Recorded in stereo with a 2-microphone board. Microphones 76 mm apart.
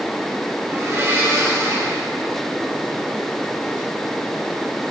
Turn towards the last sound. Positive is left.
turn(degrees=-40)  # may be behind; listen again after turning